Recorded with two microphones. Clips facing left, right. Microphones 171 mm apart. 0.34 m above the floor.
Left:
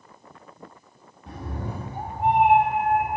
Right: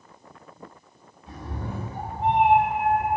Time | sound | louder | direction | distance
1.3 | a cat meowing | left 1 dB | 65° left (ahead or behind) | 0.7 m